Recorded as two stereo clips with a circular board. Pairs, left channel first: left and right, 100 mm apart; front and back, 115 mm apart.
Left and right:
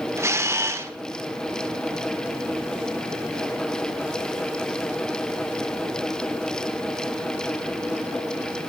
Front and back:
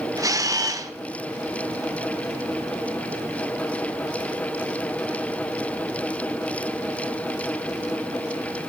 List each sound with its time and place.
0.2 s a camera shutter: 140° right, 1.1 m